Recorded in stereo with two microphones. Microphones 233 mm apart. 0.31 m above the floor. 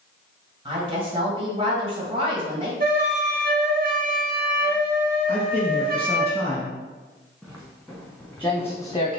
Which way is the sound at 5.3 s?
15° right (ahead or behind).